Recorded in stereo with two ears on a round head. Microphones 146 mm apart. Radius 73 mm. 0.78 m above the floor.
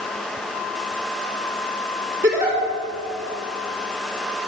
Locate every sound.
2.2 s a giggle: 20° right (ahead or behind), 3 m